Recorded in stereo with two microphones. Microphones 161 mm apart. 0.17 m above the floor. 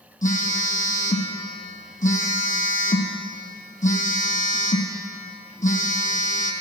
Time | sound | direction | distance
0.2 | a phone buzzing | 55° left (ahead or behind) | 1.1 m